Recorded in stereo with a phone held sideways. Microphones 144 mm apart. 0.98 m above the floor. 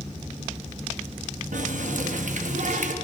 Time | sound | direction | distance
1.5 | a running tap | 65° right (ahead or behind) | 0.8 m